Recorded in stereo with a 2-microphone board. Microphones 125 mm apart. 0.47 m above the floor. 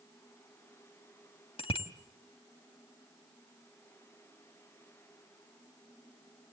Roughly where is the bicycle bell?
Left.